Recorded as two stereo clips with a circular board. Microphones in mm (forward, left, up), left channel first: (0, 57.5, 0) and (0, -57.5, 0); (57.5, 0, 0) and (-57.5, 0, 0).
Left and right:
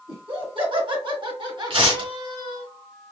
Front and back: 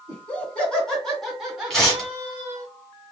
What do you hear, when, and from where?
0.1 s laughter: 70° right, 2.0 m; by 2.7 s 125° right, 1.6 m
1.7 s tearing paper: 85° right, 2 m